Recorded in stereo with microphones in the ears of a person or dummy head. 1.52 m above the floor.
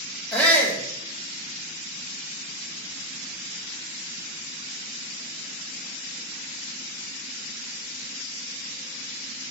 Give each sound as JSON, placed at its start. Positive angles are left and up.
{"t": 0.3, "sound": "a shout", "side_deg": 5, "distance_m": 1.6}